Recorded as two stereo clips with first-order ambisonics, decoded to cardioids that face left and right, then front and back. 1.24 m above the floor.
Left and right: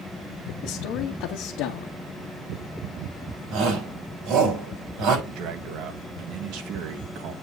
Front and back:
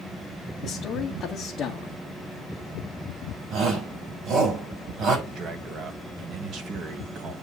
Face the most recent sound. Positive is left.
turn(degrees=-125)